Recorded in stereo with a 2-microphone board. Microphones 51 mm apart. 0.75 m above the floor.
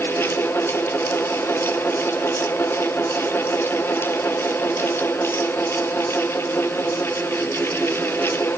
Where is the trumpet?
I don't hear a trumpet.